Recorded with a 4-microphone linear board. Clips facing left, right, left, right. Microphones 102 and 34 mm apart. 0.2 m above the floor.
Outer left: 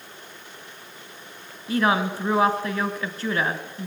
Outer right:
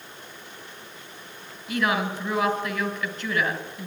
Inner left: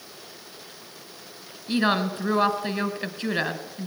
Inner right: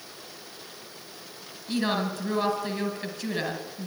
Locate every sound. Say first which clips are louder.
1.7 s a woman speaking: outer left 3 dB, inner left 4 dB; 35° left (ahead or behind), 2 m